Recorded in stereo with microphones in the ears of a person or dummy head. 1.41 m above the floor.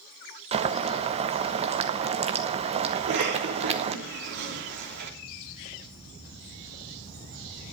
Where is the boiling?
30° right (ahead or behind), 0.8 m.